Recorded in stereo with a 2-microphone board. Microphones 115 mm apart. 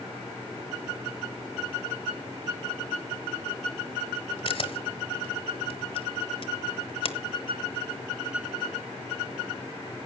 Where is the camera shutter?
50° left (ahead or behind), 1.5 m.